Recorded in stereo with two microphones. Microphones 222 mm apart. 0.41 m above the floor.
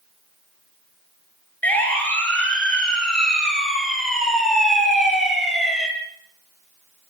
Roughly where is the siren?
Centre.